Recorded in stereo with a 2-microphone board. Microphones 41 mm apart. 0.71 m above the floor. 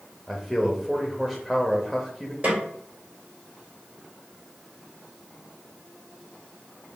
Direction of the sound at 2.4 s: 35° right (ahead or behind).